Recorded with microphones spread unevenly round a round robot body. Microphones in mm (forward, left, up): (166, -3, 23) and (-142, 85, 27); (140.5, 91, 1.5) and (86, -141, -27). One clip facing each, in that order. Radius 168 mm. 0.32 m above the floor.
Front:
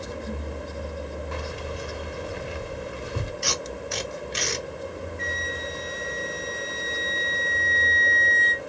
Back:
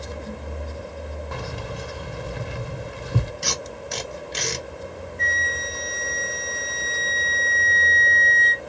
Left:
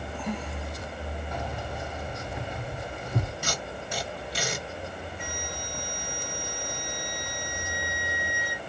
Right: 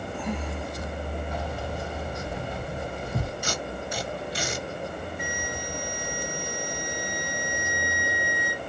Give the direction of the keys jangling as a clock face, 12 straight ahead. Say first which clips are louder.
Even, right 3 dB; 6 o'clock.